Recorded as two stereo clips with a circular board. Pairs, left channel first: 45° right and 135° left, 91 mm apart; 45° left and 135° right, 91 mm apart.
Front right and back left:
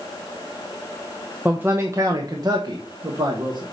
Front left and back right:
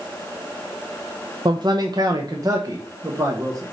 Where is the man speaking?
150° right, 0.6 m; by 3.6 s 170° left, 1.5 m.